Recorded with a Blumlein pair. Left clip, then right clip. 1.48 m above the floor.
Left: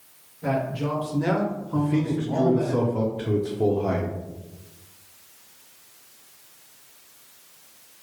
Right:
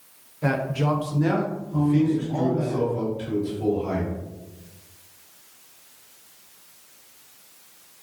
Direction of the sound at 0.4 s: 55° right.